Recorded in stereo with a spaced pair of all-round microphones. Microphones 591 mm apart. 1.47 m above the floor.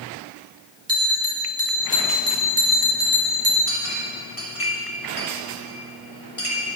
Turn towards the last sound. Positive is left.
turn(degrees=70)  # may be behind; listen again after turning